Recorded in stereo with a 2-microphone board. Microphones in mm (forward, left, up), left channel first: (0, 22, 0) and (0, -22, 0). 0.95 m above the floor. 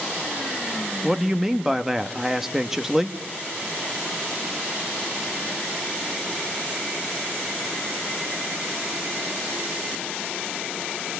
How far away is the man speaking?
About 1.0 m.